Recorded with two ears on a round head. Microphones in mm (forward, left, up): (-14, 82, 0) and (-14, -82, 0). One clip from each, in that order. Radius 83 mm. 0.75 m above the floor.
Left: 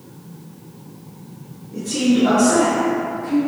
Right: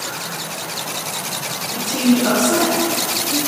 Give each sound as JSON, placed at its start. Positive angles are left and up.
{"t": 1.7, "sound": "a woman speaking", "side_deg": -50, "distance_m": 0.8}